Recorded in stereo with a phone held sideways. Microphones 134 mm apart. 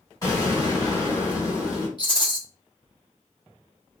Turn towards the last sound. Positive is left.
turn(degrees=35)  # may be behind; listen again after turning